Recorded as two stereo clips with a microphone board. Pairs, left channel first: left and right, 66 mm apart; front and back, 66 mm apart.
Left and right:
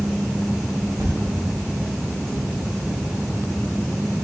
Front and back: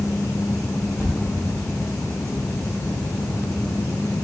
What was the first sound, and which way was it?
A thud, 60° right.